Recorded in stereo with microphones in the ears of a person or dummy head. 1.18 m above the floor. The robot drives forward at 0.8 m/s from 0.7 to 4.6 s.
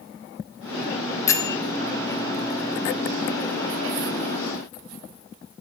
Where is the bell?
20° left (ahead or behind), 0.9 m; by 1.6 s 25° left (ahead or behind), 0.7 m.